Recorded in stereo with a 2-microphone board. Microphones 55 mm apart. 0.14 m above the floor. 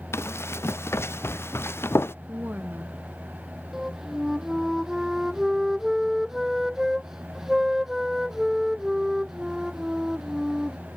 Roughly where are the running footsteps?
Left.